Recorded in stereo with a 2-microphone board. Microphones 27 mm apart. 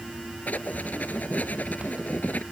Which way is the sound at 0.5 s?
85° left.